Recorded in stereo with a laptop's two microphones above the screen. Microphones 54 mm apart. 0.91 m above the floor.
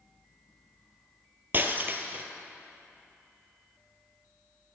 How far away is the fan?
About 2 m.